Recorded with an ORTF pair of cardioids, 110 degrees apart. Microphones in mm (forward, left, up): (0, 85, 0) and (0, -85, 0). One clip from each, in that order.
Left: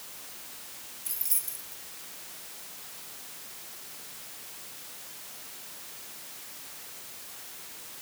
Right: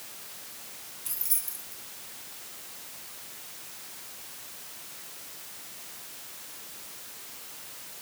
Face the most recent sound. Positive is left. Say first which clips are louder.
# even
turn(degrees=5)